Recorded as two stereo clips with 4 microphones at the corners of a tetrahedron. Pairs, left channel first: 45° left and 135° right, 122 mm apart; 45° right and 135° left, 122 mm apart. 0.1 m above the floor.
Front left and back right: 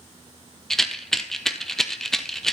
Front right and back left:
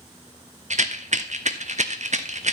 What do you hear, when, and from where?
0.7 s a rattle: 130° left, 0.8 m